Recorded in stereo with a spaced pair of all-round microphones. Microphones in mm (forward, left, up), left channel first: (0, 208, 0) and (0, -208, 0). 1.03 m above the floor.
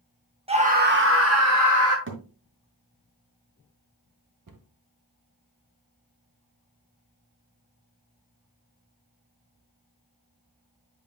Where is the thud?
30° right (ahead or behind), 1.8 m.